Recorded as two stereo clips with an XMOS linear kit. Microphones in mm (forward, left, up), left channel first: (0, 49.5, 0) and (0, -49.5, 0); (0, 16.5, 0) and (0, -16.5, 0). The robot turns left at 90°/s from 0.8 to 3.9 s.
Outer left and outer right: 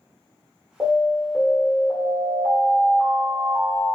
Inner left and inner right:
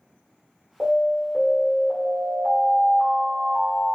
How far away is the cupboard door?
I don't hear a cupboard door.